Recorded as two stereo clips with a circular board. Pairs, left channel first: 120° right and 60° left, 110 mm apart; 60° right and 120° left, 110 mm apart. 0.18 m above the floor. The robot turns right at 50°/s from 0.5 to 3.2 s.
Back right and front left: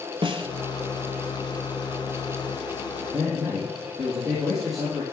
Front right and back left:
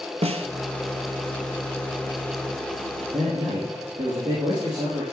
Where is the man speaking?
145° left, 4 m; by 5.0 s 150° left, 4 m.